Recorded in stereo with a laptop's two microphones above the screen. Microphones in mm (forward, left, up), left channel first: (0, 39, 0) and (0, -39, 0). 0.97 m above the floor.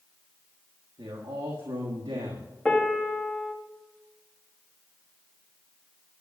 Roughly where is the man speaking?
Right.